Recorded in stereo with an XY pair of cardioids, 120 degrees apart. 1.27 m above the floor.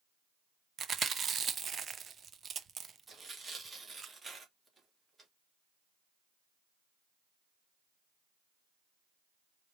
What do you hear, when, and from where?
0.8 s chewing: 40° right, 0.7 m
3.1 s tearing paper: 30° right, 2.5 m